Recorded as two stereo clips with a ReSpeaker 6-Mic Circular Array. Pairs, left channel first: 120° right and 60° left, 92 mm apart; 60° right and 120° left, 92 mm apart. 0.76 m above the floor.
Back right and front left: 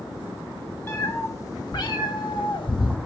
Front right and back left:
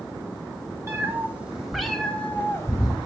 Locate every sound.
0.9 s a cat meowing: straight behind, 1.1 m; by 3.0 s 105° right, 1.1 m